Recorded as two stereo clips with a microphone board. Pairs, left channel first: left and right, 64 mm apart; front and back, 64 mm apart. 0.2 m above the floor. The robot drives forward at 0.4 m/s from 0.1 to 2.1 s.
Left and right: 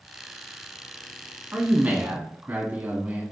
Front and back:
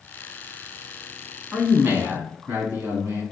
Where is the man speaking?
135° right, 1.2 m; by 3.2 s 145° right, 1.3 m.